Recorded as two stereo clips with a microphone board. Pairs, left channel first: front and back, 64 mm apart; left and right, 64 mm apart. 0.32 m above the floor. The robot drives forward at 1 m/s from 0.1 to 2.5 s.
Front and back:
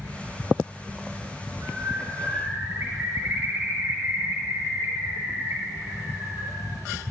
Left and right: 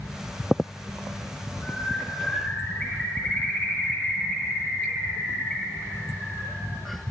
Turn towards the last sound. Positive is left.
turn(degrees=155)